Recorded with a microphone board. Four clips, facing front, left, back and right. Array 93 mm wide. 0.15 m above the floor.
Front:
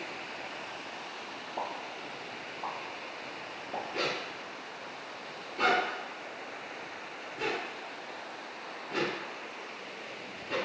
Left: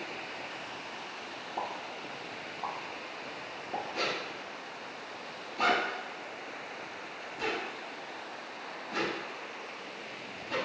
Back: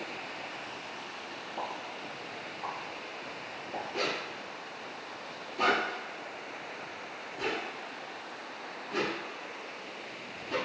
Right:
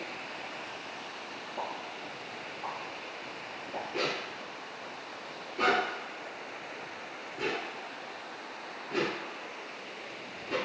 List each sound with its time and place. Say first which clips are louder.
1.6 s a pop: left 1 dB, front 1 dB; 50° left, 0.8 m
3.9 s a zipper: right 1 dB, back 1 dB; 40° right, 1.8 m